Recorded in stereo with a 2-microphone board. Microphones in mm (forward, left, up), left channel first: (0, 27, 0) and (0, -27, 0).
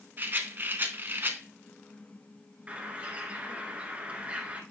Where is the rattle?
40° right (ahead or behind), 0.7 m.